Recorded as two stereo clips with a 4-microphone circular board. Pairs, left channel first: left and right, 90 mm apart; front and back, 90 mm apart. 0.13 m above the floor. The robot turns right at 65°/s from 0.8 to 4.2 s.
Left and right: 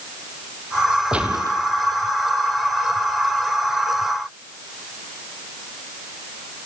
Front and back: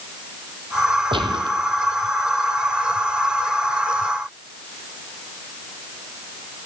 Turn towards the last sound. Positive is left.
turn(degrees=30)